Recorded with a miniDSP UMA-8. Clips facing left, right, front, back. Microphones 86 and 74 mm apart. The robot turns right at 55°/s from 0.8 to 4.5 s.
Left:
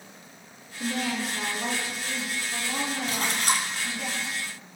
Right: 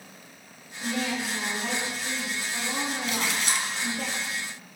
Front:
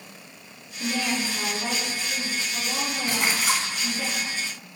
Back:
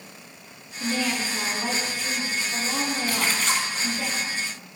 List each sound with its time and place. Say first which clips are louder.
0.8 s a woman speaking: even, back 1 dB; 75° left, 3 m; by 4.1 s 105° right, 3 m
3.1 s a splash: left 1 dB, front 3 dB; 55° left, 1.5 m; by 3.7 s 90° left, 1.5 m